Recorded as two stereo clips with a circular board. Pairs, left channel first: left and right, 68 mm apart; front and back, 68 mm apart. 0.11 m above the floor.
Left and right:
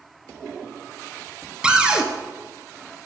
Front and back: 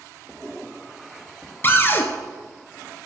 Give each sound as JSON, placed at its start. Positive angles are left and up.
{"t": 1.6, "sound": "a cupboard door", "azimuth_deg": -25, "distance_m": 0.6}